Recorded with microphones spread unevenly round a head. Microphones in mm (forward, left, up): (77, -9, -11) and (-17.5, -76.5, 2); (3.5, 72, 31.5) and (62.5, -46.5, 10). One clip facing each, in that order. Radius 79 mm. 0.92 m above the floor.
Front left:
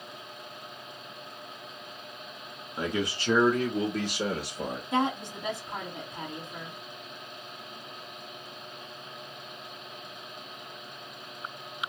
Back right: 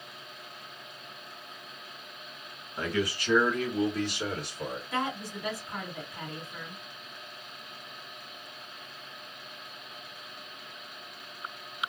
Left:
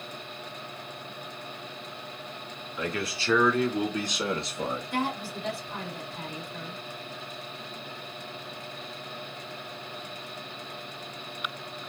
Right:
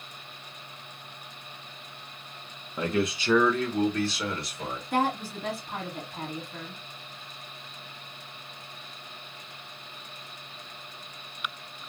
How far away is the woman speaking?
About 2 m.